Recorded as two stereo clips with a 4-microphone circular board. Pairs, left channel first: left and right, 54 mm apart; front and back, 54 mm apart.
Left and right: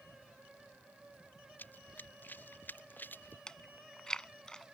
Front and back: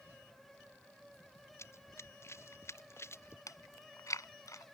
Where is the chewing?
15° left.